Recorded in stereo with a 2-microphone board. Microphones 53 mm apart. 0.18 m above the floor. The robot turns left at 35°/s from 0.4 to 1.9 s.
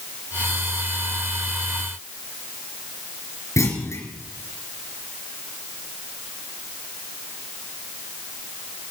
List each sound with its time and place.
3.6 s a clunk: 65° left (ahead or behind), 3.5 m